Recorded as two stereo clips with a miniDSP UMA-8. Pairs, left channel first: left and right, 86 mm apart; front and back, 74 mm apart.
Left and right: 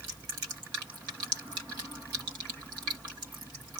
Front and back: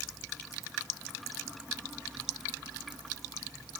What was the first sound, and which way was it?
Only background noise.